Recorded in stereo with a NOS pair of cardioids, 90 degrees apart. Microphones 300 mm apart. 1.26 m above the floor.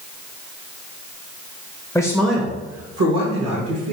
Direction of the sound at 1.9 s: 5° left.